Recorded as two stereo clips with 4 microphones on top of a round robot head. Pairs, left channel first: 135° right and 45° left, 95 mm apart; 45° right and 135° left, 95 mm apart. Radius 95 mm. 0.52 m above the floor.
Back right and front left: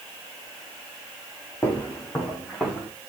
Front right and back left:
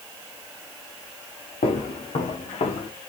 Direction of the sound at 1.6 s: 60° right.